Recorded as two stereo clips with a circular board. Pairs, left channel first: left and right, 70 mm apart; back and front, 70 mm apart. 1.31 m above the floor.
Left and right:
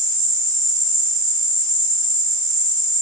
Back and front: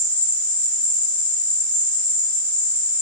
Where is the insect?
115° right, 0.8 m.